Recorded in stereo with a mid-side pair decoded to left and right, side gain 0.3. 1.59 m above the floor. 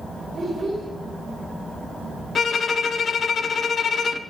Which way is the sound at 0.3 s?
50° right.